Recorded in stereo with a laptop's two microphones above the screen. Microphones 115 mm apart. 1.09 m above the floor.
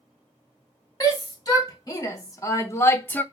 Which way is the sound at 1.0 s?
35° left (ahead or behind).